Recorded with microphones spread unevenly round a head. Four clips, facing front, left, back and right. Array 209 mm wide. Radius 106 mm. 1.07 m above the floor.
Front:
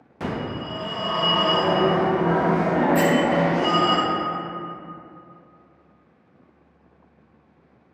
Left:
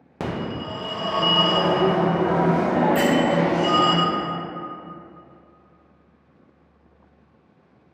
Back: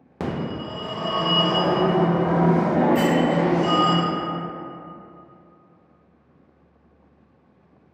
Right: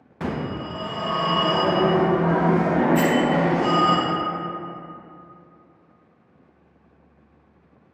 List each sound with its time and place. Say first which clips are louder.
0.2 s a phone ringing: even, back 1 dB; 135° left, 0.7 m
3.0 s a bell: even, front 1 dB; 60° left, 0.9 m